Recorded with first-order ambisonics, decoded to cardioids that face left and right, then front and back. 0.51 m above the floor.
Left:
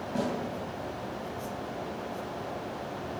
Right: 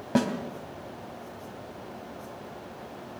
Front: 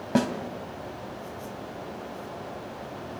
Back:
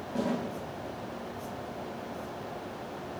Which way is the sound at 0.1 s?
35° right.